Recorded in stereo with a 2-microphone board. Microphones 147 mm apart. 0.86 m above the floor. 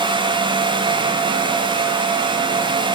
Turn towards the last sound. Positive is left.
No sound to turn to.